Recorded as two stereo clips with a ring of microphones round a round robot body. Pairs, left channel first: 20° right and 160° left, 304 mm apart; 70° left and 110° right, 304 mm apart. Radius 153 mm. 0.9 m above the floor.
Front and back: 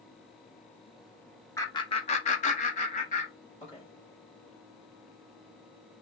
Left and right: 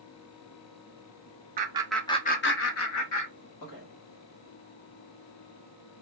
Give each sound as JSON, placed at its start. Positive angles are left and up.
{"t": 1.6, "sound": "laughter", "azimuth_deg": -95, "distance_m": 0.6}